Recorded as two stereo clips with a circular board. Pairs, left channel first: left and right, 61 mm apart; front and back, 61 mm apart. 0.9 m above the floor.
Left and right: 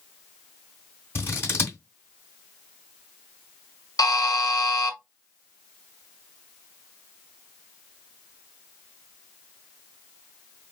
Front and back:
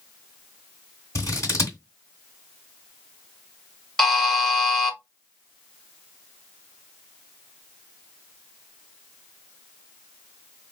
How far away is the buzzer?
About 1.5 m.